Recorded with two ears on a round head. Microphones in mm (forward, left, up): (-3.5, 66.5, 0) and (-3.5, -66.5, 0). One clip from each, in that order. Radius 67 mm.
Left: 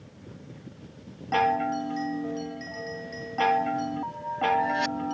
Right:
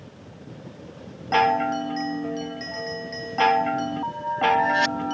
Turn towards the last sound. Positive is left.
turn(degrees=-25)  # may be behind; listen again after turning